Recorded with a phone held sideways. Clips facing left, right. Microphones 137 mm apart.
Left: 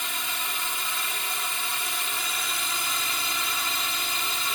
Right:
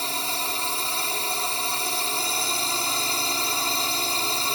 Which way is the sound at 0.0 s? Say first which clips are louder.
Right 5 dB; 35° right (ahead or behind).